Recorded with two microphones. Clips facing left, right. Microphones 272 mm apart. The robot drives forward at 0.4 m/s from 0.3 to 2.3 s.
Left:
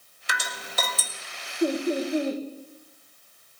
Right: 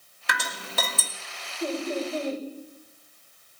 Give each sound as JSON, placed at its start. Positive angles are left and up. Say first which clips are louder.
{"t": 0.3, "sound": "dripping", "louder": "right 2 dB", "side_deg": -65, "distance_m": 1.6}
{"t": 1.6, "sound": "laughter", "louder": "left 5 dB", "side_deg": 30, "distance_m": 5.0}